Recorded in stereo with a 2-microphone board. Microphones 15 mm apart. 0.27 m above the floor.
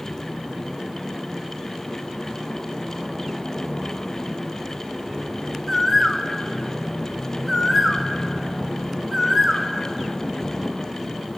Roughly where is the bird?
Centre.